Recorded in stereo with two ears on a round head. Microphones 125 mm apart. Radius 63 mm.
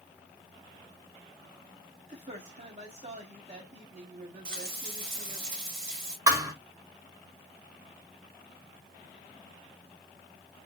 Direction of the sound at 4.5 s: 80° right.